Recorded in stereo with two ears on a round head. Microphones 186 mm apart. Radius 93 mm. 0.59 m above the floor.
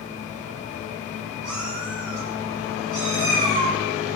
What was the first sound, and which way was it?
A cat meowing, 80° right.